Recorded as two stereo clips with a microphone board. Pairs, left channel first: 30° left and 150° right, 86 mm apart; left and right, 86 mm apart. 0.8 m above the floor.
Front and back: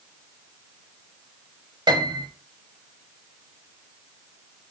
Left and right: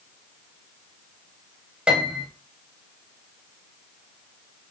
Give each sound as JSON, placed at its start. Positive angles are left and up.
{"t": 1.9, "sound": "a piano", "azimuth_deg": -165, "distance_m": 0.8}